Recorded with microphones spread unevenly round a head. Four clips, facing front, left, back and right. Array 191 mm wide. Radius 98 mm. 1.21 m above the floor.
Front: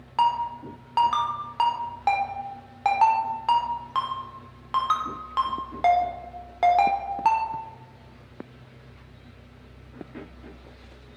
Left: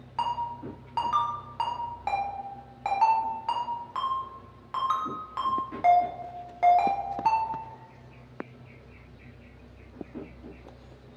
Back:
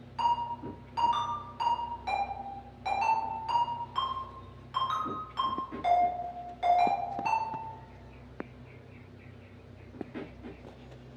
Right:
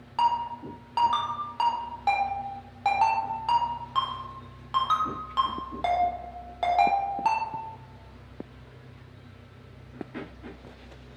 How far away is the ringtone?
About 0.8 m.